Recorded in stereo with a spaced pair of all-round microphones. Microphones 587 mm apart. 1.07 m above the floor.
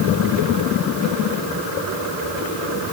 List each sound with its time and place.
Only background noise.